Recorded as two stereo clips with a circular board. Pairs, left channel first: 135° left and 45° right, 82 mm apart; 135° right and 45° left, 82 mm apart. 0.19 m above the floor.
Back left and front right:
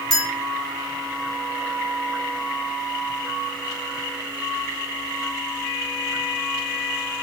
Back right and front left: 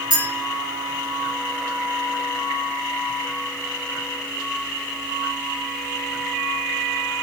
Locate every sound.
0.1 s a clink: 145° right, 1.6 m